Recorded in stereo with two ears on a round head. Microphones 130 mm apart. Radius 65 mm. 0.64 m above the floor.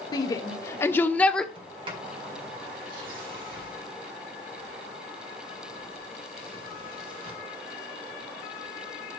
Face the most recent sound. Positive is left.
turn(degrees=-35)  # may be behind; listen again after turning